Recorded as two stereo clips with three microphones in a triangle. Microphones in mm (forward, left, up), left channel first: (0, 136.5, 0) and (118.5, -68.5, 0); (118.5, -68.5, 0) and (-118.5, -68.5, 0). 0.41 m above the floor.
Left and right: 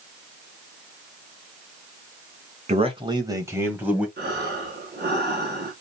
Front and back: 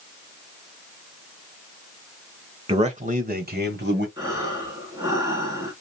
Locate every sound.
2.7 s a man speaking: 120° right, 1.5 m; by 4.1 s 145° right, 2 m
4.2 s breathing: 105° right, 3.5 m